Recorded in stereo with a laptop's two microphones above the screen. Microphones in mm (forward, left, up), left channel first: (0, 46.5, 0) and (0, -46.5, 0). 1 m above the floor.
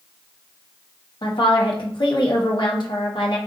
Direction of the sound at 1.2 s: 55° left (ahead or behind).